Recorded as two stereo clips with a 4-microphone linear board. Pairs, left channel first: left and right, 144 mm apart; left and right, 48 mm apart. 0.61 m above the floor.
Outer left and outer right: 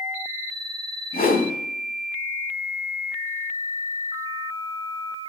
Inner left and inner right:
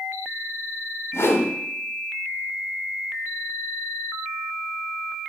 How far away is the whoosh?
About 1.2 m.